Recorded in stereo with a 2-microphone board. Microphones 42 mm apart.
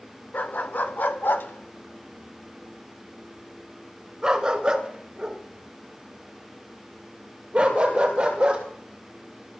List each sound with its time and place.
0.3 s a dog barking: 50° left (ahead or behind), 2.0 m; by 8.6 s 30° right (ahead or behind), 6 m